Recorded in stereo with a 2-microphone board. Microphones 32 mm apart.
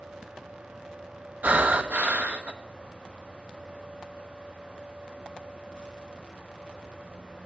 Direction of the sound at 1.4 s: 60° right (ahead or behind).